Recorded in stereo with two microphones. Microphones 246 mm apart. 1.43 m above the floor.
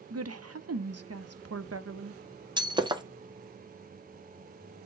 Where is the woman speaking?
75° right (ahead or behind), 0.5 m.